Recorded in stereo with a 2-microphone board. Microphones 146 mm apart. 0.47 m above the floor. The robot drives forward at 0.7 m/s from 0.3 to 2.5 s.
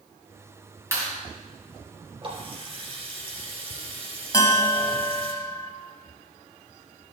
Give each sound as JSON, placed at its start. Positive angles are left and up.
{"t": 0.9, "sound": "a clap", "side_deg": -20, "distance_m": 3.5}
{"t": 2.2, "sound": "a running tap", "side_deg": -40, "distance_m": 4.0}
{"t": 4.3, "sound": "a bell", "side_deg": 25, "distance_m": 1.8}